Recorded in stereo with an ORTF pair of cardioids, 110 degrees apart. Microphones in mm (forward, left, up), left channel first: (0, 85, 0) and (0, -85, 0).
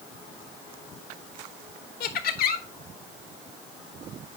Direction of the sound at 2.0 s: 65° left.